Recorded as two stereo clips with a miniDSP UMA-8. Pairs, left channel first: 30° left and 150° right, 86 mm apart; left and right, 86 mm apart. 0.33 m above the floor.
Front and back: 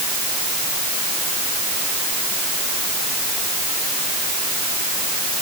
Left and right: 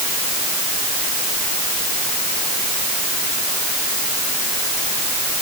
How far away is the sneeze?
I don't hear a sneeze.